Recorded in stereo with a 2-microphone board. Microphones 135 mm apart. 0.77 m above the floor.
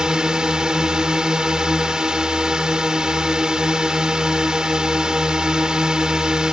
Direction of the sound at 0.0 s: 5° right (ahead or behind).